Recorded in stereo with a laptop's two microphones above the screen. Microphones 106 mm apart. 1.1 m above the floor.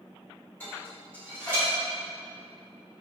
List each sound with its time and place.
0.6 s dishes clattering: 20° left (ahead or behind), 1.9 m